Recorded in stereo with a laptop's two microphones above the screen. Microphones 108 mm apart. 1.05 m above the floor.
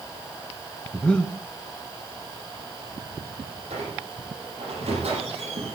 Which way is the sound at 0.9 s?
10° left (ahead or behind).